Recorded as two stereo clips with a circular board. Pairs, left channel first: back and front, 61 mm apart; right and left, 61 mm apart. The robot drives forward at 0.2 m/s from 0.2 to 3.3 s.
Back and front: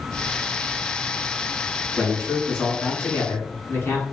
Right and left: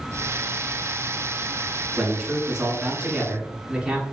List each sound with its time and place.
2.0 s a man speaking: 145° left, 1.6 m; by 4.0 s 155° left, 1.7 m